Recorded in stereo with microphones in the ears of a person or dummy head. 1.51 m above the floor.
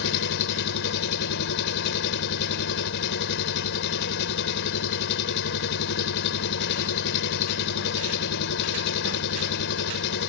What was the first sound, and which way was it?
An engine running, 70° left (ahead or behind).